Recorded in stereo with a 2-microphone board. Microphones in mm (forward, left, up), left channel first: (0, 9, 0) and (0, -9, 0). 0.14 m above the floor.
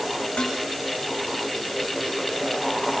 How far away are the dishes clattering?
About 6 m.